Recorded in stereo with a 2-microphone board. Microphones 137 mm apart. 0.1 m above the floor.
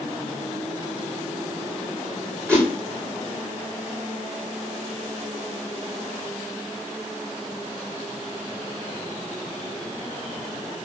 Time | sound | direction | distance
2.5 | a whoosh | 10° left (ahead or behind) | 7.5 m